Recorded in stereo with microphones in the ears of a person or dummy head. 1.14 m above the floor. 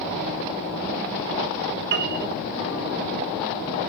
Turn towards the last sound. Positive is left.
turn(degrees=-60)  # may be behind; listen again after turning